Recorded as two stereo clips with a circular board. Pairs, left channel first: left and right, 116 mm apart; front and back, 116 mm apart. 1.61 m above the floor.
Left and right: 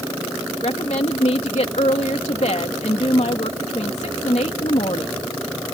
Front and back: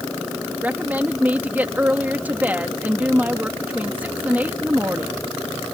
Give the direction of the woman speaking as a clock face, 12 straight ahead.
8 o'clock.